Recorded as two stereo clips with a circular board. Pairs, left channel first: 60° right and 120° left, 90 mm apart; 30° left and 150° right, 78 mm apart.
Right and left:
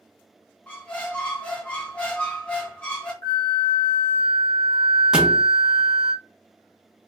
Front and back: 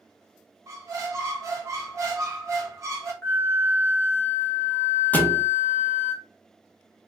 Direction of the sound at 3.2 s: 25° right.